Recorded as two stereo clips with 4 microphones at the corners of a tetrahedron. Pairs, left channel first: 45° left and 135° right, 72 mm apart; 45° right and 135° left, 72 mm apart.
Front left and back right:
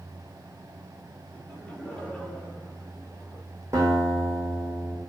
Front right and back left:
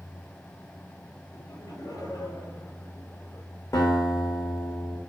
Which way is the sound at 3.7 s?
90° right.